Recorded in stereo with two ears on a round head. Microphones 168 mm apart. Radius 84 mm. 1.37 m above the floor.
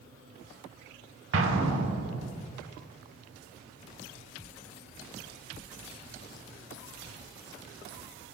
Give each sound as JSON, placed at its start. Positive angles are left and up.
{"t": 1.3, "sound": "an explosion", "side_deg": -75, "distance_m": 1.0}